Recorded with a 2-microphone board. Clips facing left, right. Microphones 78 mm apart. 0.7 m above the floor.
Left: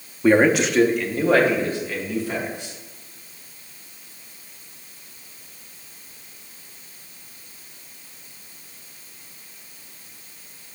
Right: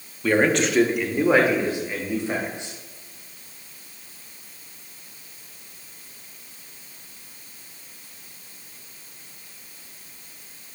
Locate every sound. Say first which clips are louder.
0.2 s a man speaking: left 4 dB; 25° left (ahead or behind), 0.7 m; by 2.7 s 25° right (ahead or behind), 3.5 m